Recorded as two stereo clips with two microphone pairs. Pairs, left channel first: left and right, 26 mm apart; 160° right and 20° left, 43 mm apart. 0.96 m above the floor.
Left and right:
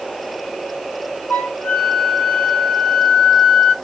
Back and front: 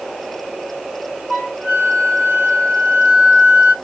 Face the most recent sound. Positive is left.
turn(degrees=90)